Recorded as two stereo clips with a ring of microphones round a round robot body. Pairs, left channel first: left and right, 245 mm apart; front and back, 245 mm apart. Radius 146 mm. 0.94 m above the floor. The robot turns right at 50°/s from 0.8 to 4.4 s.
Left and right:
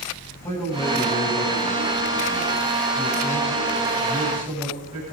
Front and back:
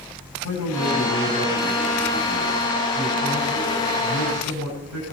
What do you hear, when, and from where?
0.4 s a man speaking: 10° left, 8.5 m; by 5.1 s 170° right, 8.5 m